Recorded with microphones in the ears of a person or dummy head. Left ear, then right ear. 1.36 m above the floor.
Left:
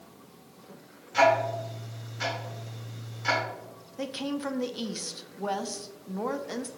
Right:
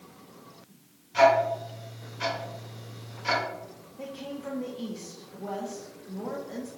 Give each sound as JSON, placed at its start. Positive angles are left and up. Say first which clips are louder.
{"t": 1.1, "sound": "ticking", "louder": "right 2 dB", "side_deg": 35, "distance_m": 1.8}
{"t": 4.0, "sound": "a woman speaking", "louder": "left 5 dB", "side_deg": 55, "distance_m": 0.5}